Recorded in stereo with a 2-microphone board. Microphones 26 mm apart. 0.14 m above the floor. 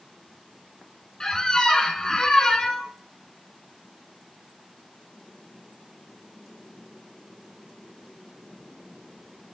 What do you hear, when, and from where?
1.2 s a squeak: 25° left (ahead or behind), 1.0 m